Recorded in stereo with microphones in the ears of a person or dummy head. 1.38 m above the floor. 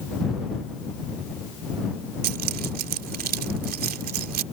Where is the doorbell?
No doorbell in this recording.